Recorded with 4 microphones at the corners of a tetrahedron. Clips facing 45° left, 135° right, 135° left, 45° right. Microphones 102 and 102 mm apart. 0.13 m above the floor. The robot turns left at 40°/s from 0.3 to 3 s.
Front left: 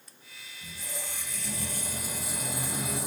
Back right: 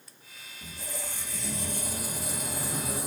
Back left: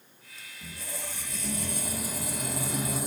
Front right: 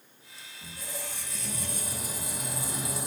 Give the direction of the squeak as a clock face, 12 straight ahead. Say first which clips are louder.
Back right 2 dB, even; 5 o'clock.